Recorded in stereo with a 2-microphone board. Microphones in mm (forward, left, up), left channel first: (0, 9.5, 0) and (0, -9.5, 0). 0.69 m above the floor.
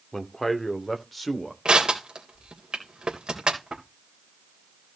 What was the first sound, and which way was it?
A man speaking, 15° left (ahead or behind).